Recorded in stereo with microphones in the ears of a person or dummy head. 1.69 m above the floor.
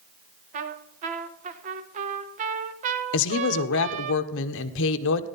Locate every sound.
0.5 s a trumpet: 40° right (ahead or behind), 1.3 m
3.1 s a woman speaking: 70° left (ahead or behind), 1.1 m